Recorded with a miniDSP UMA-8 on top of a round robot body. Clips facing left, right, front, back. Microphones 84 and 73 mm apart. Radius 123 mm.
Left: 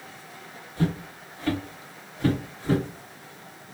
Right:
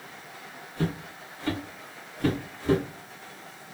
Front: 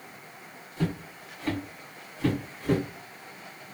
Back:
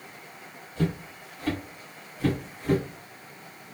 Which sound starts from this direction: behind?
Footsteps, at 0.8 s.